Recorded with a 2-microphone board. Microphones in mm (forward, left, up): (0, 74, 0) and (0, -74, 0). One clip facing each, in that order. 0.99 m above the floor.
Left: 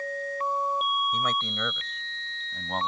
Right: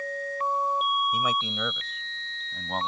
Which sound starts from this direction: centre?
A man speaking, at 1.1 s.